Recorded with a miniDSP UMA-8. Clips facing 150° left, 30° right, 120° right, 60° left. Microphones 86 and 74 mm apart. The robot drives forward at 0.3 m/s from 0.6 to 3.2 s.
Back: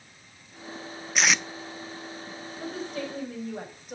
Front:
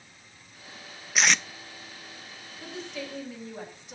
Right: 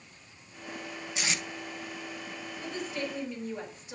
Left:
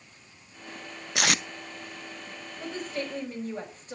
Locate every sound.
1.1 s tape being pulled: 60° left, 0.5 m; by 1.4 s 70° left, 0.5 m
2.6 s a woman speaking: 105° left, 5 m; by 4.0 s 110° left, 5 m